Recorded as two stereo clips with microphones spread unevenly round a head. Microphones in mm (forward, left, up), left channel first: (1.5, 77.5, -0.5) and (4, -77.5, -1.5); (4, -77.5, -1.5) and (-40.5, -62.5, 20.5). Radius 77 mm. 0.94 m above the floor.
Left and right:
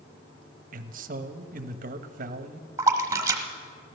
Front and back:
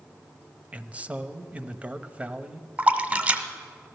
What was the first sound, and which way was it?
A man speaking, 125° right.